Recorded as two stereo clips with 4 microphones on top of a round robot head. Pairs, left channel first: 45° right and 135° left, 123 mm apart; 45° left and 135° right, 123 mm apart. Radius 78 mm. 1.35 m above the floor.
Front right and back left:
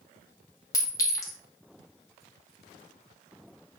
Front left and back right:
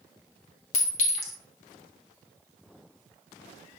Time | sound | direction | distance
0.7 | a clink | 15° left | 0.9 m